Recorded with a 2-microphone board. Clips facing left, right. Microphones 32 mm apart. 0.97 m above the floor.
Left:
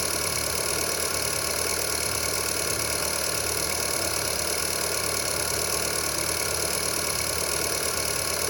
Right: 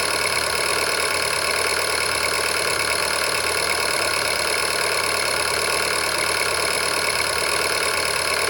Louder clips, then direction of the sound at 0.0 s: Right 8 dB; 45° right (ahead or behind).